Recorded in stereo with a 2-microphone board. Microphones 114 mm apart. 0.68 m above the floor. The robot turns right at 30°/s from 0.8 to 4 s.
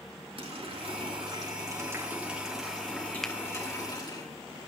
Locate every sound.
0.4 s a running tap: 55° right, 5 m; by 4.2 s 40° left, 5 m
3.2 s a finger snap: 5° left (ahead or behind), 1.1 m; by 3.4 s centre (ahead or behind), 1.1 m